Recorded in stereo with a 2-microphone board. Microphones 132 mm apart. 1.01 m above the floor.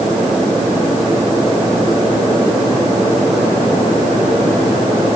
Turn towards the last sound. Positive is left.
No sound to turn to.